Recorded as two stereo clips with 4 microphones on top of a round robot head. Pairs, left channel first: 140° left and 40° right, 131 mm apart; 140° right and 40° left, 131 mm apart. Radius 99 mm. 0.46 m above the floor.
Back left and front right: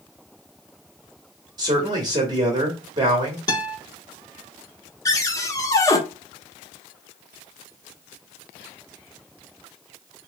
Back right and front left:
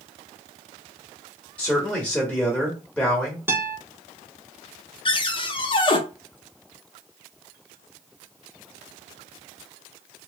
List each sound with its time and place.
1.6 s a man speaking: 65° right, 1.5 m
3.5 s a guitar: 100° left, 1.7 m
5.0 s a cupboard door: 165° right, 0.9 m